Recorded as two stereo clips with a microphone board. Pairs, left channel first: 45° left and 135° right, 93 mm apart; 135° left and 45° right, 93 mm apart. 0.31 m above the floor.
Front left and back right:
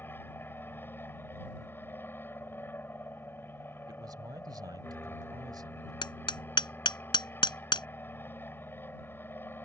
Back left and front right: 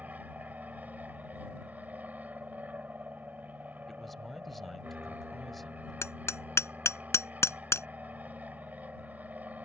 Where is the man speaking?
140° right.